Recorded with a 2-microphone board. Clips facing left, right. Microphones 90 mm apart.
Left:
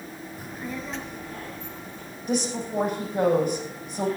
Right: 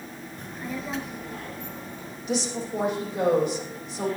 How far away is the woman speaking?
About 6.5 m.